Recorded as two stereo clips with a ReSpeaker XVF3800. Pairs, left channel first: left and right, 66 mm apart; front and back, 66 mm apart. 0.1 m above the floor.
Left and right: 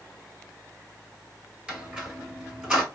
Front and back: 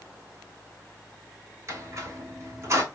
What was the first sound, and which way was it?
A squeak, 165° right.